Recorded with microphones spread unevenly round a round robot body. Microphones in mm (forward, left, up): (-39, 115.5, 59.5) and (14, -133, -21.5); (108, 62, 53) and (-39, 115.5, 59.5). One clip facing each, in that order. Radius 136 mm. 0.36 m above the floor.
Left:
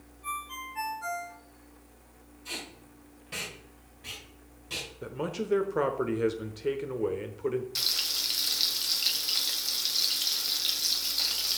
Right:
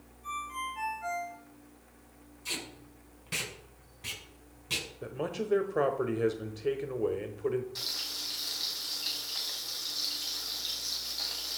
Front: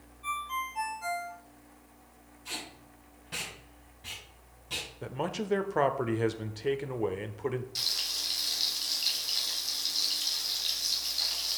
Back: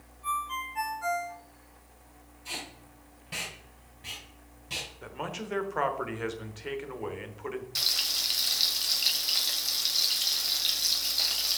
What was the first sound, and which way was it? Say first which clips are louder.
A ringtone: right 2 dB, back 2 dB; 65° left.